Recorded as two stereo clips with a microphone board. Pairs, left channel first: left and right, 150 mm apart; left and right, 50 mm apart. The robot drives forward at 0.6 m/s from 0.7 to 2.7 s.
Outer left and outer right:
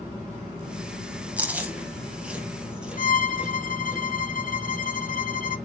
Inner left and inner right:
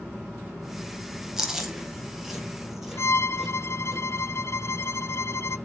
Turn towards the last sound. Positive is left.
turn(degrees=70)  # may be behind; listen again after turning